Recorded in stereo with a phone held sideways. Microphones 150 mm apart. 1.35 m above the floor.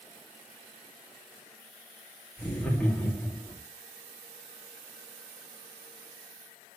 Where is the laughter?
10° left (ahead or behind), 3 m.